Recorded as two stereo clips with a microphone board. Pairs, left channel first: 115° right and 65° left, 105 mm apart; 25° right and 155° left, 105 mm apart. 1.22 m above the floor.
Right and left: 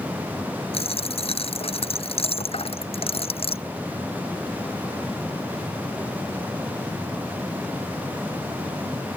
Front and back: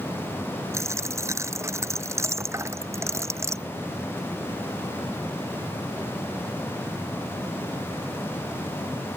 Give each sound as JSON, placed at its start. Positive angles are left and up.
{"t": 0.7, "sound": "a dropped coin", "azimuth_deg": -140}